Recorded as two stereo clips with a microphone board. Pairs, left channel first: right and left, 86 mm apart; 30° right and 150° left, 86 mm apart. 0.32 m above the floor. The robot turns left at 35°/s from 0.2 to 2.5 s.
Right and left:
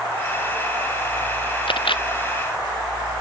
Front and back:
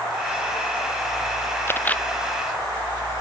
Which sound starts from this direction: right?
A camera shutter, at 1.7 s.